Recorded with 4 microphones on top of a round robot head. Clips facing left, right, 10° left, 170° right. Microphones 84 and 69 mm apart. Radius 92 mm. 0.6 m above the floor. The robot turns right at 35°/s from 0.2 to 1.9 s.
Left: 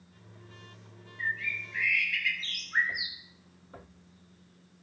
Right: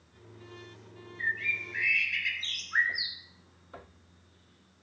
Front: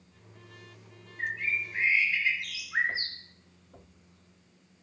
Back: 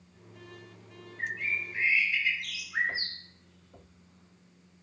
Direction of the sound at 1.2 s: 55° right.